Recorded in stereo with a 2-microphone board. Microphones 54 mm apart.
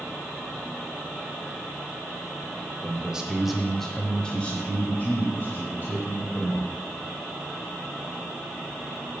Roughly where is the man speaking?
Centre.